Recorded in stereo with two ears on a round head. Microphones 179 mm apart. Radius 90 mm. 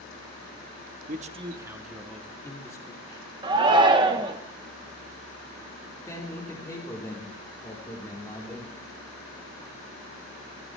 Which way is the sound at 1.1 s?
45° right (ahead or behind).